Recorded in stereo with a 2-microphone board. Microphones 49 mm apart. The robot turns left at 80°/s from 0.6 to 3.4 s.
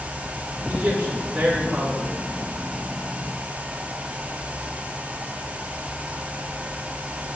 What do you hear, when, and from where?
0.7 s a man speaking: 85° right, 3 m; by 2.1 s 155° left, 3 m